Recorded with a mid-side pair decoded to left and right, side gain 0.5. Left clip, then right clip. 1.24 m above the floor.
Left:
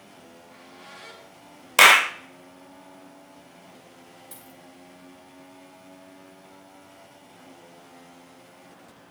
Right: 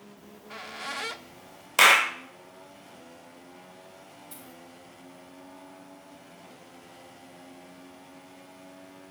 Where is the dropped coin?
25° left, 3 m.